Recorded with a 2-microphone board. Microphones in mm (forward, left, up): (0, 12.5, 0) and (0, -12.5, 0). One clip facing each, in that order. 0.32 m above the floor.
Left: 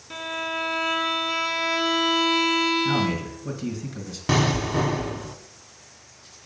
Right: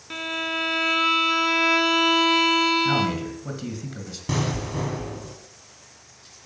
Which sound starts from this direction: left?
An explosion, at 4.3 s.